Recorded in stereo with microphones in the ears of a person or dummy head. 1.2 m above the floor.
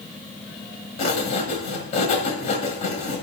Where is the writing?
40° left (ahead or behind), 1.7 m.